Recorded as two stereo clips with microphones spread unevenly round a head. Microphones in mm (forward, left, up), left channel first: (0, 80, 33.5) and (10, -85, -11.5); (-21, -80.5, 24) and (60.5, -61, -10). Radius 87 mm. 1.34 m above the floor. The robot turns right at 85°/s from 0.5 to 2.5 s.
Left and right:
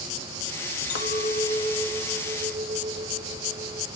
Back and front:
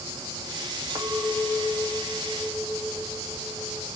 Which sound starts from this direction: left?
A clink, at 0.9 s.